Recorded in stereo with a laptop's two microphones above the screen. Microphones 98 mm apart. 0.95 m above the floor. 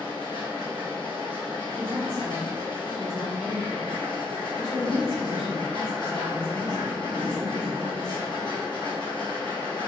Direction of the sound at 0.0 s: 50° left (ahead or behind).